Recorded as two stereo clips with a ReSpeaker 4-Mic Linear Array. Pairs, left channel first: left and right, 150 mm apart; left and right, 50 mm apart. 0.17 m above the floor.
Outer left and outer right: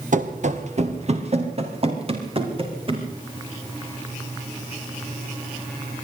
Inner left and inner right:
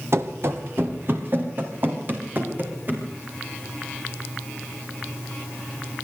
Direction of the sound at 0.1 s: 60° right (ahead or behind).